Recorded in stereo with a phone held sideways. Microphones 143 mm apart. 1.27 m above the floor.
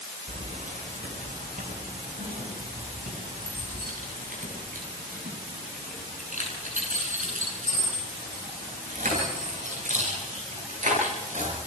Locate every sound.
0.3 s keys jangling: 60° right (ahead or behind), 4 m